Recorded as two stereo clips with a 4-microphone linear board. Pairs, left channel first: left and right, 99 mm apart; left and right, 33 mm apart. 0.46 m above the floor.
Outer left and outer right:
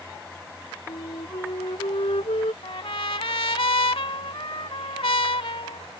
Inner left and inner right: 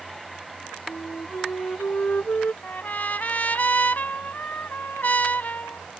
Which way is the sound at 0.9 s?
70° left (ahead or behind).